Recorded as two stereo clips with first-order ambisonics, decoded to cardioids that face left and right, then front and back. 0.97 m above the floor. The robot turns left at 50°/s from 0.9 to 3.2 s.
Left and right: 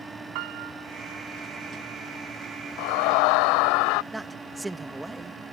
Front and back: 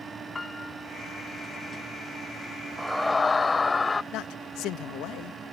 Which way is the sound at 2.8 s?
100° left.